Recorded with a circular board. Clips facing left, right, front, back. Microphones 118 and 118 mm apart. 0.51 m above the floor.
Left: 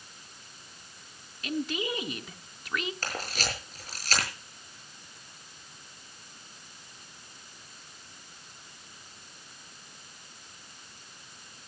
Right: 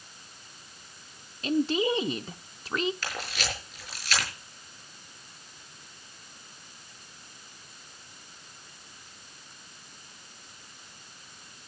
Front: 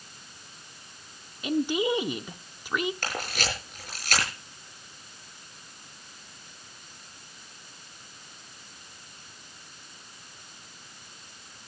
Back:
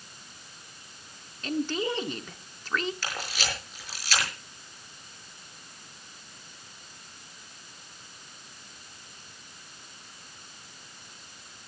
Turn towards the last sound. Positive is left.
turn(degrees=40)